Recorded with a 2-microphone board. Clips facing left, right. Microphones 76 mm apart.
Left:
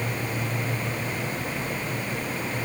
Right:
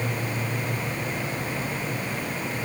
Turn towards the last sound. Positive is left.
No sound to turn to.